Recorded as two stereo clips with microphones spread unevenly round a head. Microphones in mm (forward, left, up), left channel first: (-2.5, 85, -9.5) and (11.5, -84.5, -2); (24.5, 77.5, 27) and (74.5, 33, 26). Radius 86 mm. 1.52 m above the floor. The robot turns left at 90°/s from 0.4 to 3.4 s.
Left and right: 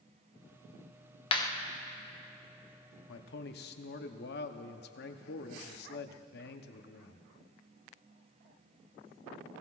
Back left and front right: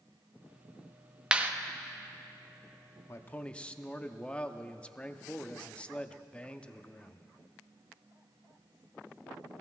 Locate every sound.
1.3 s a clap: 35° left, 0.9 m; by 1.5 s 15° left, 0.9 m
3.1 s a man speaking: 90° left, 0.8 m; by 7.2 s 65° left, 0.8 m